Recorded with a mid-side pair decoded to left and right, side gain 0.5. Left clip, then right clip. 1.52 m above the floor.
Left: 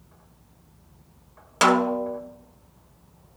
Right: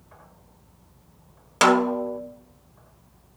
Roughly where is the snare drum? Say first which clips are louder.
Right 1 dB; ahead.